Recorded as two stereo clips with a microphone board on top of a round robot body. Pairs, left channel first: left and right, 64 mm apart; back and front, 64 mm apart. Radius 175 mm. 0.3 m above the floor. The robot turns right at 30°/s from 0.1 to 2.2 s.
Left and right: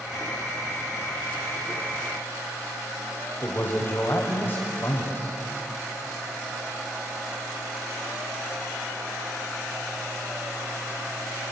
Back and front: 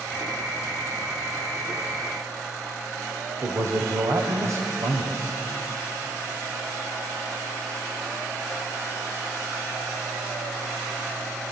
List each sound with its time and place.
3.4 s a man speaking: 35° left, 2.5 m